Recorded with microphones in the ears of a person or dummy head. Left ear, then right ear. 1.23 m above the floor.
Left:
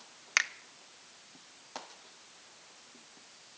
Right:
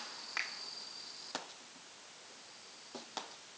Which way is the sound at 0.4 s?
70° left (ahead or behind).